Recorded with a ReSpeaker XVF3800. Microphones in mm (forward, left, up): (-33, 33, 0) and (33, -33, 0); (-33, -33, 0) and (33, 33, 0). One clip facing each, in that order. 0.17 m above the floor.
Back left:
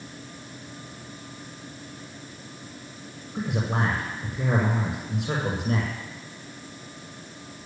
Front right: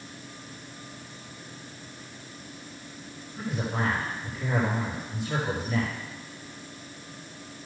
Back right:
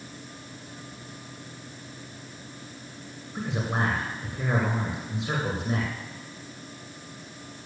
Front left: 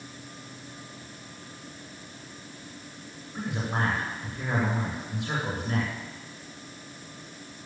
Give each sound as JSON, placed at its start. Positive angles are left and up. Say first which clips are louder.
{"t": 3.4, "sound": "a man speaking", "louder": "back left 3 dB, back right 1 dB", "azimuth_deg": 155, "distance_m": 7.5}